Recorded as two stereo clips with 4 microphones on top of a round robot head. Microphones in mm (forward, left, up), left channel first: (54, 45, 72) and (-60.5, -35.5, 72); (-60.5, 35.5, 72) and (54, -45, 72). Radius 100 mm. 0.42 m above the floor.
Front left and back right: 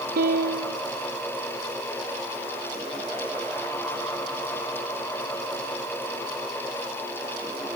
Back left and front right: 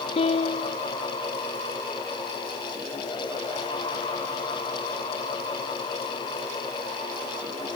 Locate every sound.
0.2 s a piano: 165° right